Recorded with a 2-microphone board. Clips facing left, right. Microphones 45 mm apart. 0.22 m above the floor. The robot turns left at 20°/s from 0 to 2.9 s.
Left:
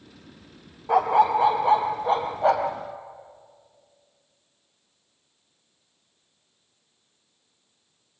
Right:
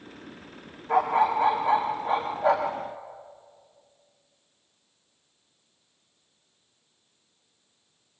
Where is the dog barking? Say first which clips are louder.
Left 3 dB; 110° left, 2.5 m; by 2.8 s 70° left, 2.5 m.